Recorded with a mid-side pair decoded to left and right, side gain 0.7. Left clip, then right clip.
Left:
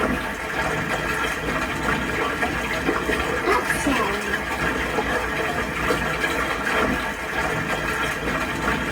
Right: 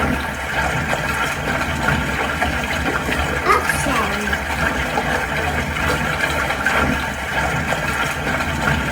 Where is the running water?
60° right, 1.2 m.